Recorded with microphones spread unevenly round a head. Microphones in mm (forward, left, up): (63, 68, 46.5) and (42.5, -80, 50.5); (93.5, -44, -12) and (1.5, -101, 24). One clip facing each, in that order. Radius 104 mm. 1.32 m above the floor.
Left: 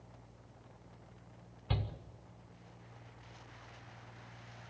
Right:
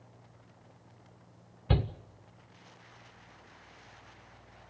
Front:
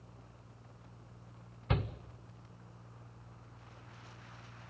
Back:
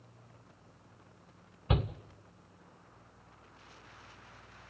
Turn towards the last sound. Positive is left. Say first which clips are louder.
# right 9 dB, back 3 dB
turn(degrees=-70)